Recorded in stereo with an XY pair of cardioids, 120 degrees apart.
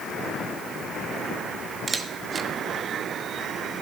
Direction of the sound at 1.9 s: 25° right.